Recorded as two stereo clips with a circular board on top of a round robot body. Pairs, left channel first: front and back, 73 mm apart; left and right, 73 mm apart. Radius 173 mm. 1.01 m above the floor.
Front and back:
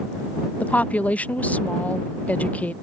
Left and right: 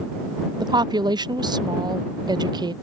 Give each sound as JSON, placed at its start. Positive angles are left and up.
{"t": 0.6, "sound": "a woman speaking", "azimuth_deg": -70}